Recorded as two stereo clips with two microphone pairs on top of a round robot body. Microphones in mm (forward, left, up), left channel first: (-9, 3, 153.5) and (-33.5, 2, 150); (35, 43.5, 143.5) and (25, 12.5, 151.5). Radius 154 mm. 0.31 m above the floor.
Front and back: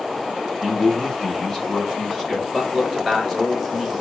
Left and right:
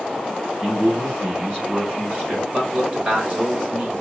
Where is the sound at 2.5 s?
110° right, 1.7 m.